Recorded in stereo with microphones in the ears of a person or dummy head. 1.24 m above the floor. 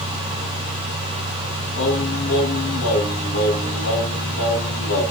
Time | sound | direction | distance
1.8 | singing | 80° left | 8 m